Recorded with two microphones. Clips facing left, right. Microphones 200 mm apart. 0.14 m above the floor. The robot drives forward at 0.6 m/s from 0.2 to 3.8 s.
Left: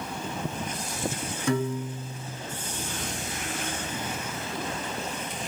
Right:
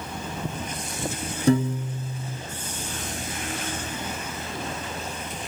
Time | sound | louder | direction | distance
1.5 | a piano | right 6 dB | 35° right (ahead or behind) | 1.5 m